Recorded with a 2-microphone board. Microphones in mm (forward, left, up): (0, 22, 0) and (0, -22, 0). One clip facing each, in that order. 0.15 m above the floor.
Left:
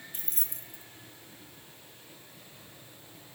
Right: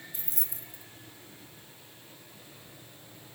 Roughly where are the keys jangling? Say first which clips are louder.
Even; left.